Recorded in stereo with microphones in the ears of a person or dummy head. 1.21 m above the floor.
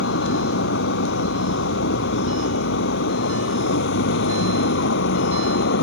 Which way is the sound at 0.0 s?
65° left (ahead or behind).